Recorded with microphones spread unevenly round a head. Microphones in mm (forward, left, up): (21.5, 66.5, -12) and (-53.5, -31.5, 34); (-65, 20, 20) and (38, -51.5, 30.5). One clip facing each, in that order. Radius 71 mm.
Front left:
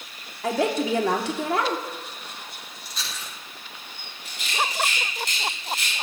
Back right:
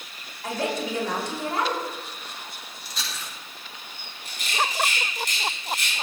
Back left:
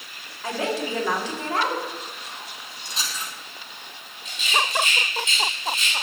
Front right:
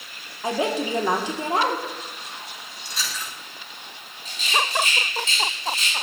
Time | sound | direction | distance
0.4 | a woman speaking | 40° left | 2.5 m
2.9 | chewing | 150° right | 5.5 m
4.2 | a rattle | 20° left | 7 m